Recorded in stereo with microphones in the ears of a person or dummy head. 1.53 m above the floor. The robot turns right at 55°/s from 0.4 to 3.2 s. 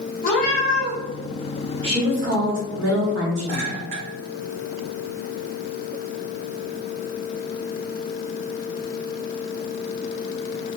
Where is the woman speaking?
150° right, 1.2 m; by 3.8 s 75° right, 1.2 m.